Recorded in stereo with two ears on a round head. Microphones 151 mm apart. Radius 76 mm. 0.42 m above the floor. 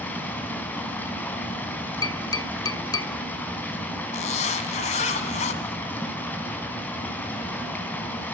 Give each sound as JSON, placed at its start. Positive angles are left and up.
{"t": 0.0, "sound": "running water", "side_deg": 10, "distance_m": 3.5}
{"t": 2.0, "sound": "tapping", "side_deg": 25, "distance_m": 1.0}
{"t": 4.1, "sound": "a zipper", "side_deg": 40, "distance_m": 1.6}